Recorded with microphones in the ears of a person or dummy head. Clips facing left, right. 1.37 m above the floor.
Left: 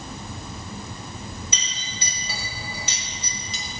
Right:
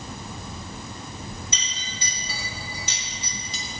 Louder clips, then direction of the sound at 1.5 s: Left 1 dB; 60° left (ahead or behind).